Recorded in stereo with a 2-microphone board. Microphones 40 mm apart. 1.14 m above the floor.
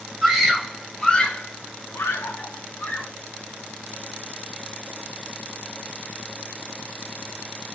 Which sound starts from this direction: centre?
A scream, at 0.2 s.